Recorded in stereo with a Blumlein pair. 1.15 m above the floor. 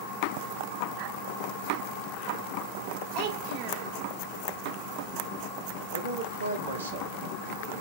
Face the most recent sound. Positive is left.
turn(degrees=-70)